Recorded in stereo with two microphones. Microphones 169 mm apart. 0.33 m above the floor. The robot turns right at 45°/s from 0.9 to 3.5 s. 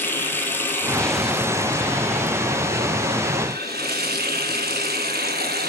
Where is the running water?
170° left, 1.4 m; by 5.7 s 75° right, 1.4 m.